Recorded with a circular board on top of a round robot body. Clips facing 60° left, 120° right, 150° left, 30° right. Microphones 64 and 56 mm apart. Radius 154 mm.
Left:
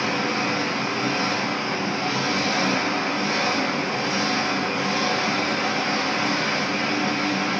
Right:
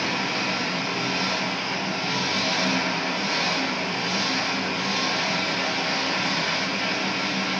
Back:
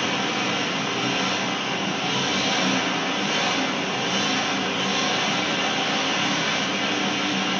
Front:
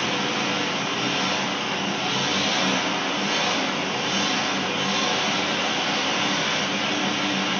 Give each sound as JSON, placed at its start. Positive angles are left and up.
{"t": 0.0, "sound": "an engine running", "azimuth_deg": 70, "distance_m": 1.4}